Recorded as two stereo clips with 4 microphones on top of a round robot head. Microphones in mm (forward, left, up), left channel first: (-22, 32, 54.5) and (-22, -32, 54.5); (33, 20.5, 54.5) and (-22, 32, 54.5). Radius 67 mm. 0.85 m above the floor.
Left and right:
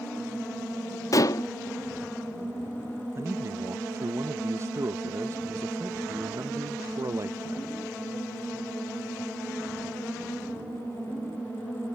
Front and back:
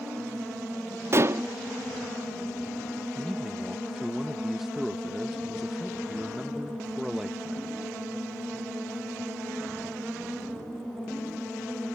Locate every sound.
1.1 s dishes clattering: 125° left
3.1 s a man speaking: 105° right